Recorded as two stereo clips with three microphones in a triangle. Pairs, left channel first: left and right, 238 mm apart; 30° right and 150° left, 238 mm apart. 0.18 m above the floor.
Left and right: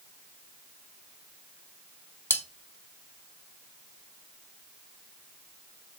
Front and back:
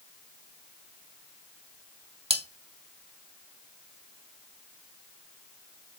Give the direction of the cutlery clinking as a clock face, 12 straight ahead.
7 o'clock.